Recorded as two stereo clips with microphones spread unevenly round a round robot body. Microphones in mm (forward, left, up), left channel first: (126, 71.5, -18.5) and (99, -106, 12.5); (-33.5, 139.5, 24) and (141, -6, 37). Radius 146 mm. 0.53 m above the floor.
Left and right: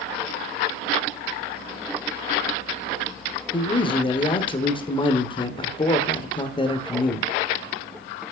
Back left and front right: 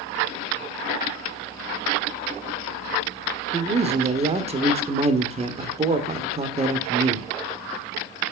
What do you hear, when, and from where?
3.5 s a man speaking: 25° left, 1.2 m